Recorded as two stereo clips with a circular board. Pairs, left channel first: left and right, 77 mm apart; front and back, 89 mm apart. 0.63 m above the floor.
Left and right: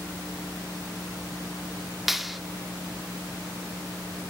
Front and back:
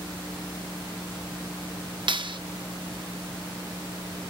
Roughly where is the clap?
Behind.